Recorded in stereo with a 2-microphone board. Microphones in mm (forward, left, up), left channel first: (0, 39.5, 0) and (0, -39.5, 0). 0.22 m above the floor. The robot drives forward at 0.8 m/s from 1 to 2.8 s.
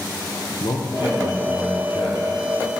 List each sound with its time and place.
0.6 s a man speaking: 80° left, 5 m; by 2.4 s 75° left (ahead or behind), 5 m